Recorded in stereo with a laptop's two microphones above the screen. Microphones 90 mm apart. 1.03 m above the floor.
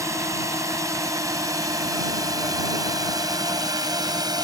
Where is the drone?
35° right (ahead or behind); by 4.4 s 50° right (ahead or behind).